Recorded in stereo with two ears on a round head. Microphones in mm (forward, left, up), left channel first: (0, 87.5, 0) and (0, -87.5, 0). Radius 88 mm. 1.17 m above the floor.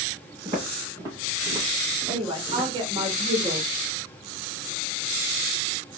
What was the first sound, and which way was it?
Footsteps, 25° right (ahead or behind).